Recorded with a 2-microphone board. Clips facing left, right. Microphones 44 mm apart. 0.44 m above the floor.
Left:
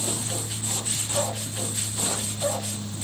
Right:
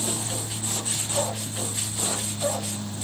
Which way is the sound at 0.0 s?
25° right (ahead or behind).